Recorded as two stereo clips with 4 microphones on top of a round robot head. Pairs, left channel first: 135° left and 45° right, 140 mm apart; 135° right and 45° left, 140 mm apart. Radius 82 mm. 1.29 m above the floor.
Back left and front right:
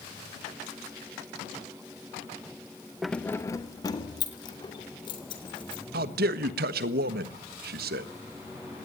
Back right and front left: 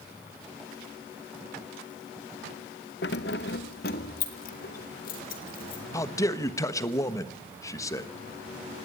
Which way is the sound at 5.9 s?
65° right.